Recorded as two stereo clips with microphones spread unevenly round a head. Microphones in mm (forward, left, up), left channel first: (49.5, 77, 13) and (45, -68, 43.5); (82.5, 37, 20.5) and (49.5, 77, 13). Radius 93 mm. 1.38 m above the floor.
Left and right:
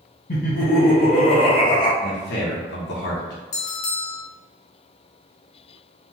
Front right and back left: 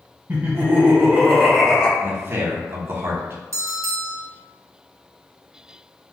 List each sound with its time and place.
0.3 s laughter: 70° left, 1.5 m; by 1.9 s 20° left, 0.9 m
2.0 s a man speaking: 85° left, 0.8 m
3.5 s a bell: 125° left, 0.5 m